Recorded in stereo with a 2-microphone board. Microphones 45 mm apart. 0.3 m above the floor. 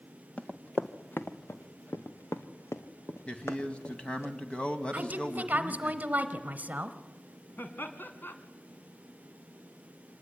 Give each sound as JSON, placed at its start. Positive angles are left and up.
{"t": 0.4, "sound": "running footsteps", "side_deg": 25, "distance_m": 1.8}
{"t": 3.3, "sound": "a man speaking", "side_deg": 25, "distance_m": 2.0}
{"t": 4.9, "sound": "a woman speaking", "side_deg": -40, "distance_m": 1.6}
{"t": 7.6, "sound": "laughter", "side_deg": 50, "distance_m": 2.5}